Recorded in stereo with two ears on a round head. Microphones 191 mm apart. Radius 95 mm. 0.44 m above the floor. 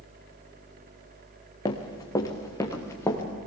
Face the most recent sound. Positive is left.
turn(degrees=15)  # may be behind; listen again after turning